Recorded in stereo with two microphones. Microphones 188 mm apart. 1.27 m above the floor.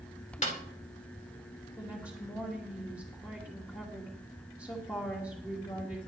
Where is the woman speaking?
15° left (ahead or behind), 2.5 m.